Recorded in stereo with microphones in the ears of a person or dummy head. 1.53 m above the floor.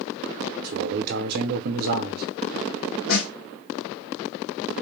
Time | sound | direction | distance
0.6 | a man speaking | 60° right (ahead or behind) | 0.9 m
3.1 | a snare drum | 70° left (ahead or behind) | 2.5 m